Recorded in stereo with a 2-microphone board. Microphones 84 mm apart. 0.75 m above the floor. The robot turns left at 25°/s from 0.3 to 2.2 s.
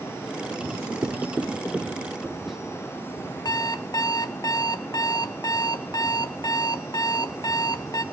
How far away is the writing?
About 1.8 m.